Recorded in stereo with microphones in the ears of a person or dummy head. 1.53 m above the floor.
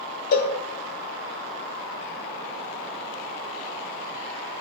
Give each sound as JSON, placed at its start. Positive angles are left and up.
{"t": 0.3, "sound": "a cowbell", "side_deg": 55, "distance_m": 2.0}